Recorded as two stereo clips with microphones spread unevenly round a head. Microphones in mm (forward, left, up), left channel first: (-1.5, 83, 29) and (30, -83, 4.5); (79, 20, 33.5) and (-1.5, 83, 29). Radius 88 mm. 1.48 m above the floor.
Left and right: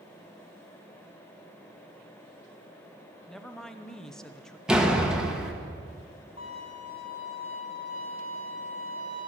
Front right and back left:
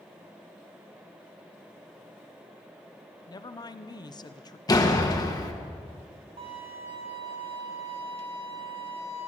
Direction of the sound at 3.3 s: 15° left.